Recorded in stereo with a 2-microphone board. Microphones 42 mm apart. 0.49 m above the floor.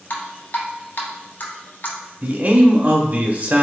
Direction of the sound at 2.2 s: 40° right (ahead or behind).